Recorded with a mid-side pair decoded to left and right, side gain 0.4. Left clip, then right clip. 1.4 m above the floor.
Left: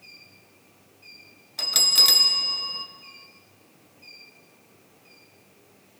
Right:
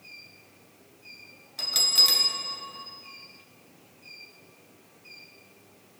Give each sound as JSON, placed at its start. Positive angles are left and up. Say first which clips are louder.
{"t": 1.6, "sound": "a bell", "louder": "left 3 dB", "azimuth_deg": 40, "distance_m": 0.7}